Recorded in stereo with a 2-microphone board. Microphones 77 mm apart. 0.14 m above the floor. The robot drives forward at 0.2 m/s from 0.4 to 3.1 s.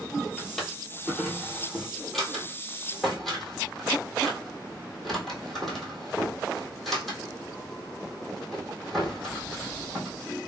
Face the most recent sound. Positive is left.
turn(degrees=0)  # may be behind; listen again after turning